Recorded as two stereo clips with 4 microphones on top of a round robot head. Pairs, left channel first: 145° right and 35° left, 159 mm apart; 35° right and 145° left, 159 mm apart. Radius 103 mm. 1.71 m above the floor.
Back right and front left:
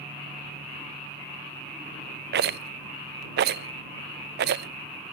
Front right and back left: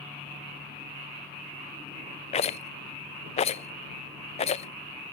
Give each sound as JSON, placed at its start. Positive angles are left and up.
{"t": 2.3, "sound": "a rattle", "azimuth_deg": 15}